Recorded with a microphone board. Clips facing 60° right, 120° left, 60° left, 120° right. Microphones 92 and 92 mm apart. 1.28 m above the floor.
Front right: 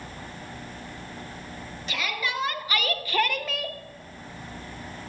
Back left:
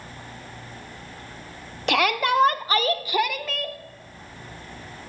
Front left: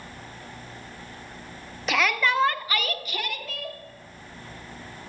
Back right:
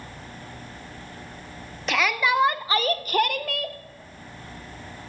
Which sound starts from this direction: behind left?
A shout, at 1.9 s.